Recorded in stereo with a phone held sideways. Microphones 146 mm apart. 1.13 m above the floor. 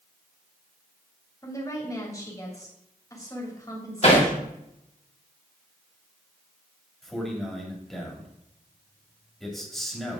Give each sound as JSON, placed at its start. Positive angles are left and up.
{"t": 1.4, "sound": "a woman speaking", "side_deg": 20, "distance_m": 2.5}
{"t": 4.0, "sound": "hammering", "side_deg": 45, "distance_m": 2.5}
{"t": 7.0, "sound": "a man speaking", "side_deg": 0, "distance_m": 2.5}